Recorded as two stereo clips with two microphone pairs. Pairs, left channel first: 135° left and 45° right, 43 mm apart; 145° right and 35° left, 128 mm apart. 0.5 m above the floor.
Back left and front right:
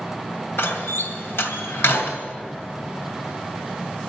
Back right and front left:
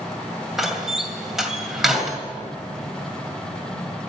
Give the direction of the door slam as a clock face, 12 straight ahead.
8 o'clock.